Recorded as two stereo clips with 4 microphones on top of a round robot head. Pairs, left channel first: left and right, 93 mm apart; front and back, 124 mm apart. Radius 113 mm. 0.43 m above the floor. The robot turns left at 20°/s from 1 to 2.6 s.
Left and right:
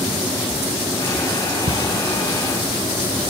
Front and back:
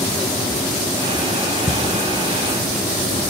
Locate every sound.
1.7 s a camera shutter: 105° right, 2 m; by 3.3 s 120° right, 2 m